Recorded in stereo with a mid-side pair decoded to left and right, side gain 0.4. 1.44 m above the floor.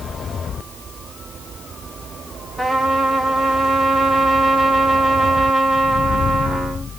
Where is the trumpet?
15° right, 2.0 m.